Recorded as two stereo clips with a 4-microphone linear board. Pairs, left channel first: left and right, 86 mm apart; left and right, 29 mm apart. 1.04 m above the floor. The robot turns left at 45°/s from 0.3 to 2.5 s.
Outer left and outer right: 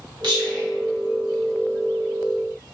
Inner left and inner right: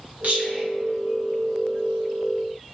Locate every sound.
0.2 s whispering: 60° right (ahead or behind), 1.4 m; by 0.6 s 45° right (ahead or behind), 1.4 m